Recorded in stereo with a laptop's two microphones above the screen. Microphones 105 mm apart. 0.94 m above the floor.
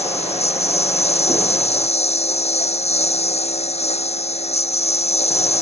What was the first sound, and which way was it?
A lawn mower, 85° left.